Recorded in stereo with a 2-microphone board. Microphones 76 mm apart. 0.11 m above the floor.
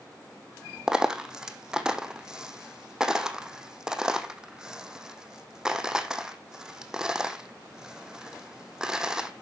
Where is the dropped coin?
10° right (ahead or behind), 1.1 m.